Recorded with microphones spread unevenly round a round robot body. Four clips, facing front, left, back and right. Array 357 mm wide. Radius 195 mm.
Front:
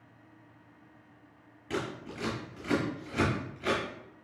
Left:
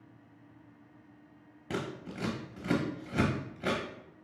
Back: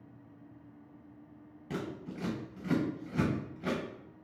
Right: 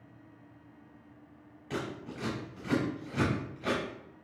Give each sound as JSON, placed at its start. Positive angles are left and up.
{"t": 1.7, "sound": "scissors", "azimuth_deg": 110, "distance_m": 0.7}